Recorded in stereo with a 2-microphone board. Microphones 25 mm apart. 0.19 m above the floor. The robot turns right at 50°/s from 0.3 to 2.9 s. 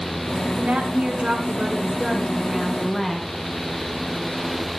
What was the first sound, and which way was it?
A woman speaking, 100° right.